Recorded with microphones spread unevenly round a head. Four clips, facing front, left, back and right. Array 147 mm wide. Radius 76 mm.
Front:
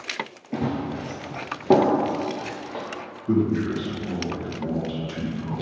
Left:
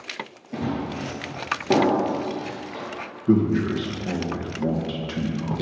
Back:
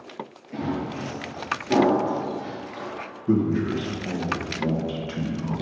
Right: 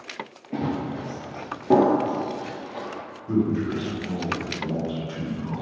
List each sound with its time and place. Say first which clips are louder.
0.5 s running footsteps: even, front 2 dB; 35° right, 2 m; by 2.9 s 5° left, 3.5 m
3.3 s a man speaking: left 4 dB, even; 110° left, 1.8 m